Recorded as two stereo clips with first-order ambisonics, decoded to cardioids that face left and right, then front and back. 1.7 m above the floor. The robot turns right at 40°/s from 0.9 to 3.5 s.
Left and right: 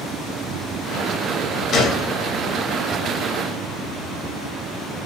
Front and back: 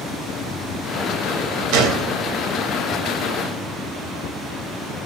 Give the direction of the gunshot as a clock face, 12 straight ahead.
7 o'clock.